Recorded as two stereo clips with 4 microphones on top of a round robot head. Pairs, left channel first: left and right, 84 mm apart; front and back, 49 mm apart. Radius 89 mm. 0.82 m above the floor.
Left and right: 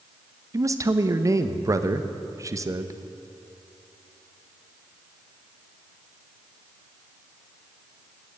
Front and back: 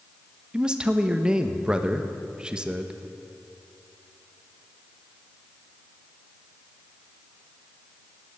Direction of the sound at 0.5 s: 115° right.